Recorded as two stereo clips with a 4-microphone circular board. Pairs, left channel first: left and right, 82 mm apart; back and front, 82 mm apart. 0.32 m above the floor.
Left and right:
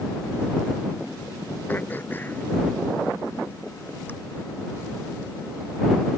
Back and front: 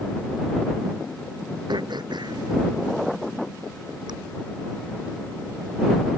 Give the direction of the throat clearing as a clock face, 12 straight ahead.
11 o'clock.